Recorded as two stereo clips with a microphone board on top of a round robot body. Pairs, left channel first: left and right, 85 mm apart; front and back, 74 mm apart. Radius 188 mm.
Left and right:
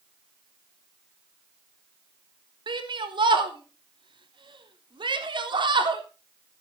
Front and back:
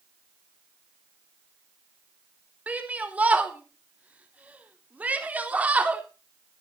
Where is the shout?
110° right, 4 m.